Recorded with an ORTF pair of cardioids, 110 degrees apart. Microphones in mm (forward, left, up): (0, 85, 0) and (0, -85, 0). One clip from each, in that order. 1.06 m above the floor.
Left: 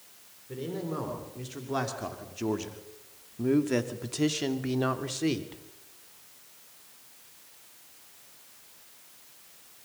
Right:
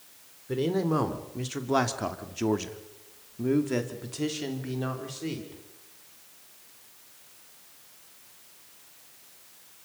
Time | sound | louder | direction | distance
0.5 | a man speaking | right 8 dB | 55° right | 3.5 m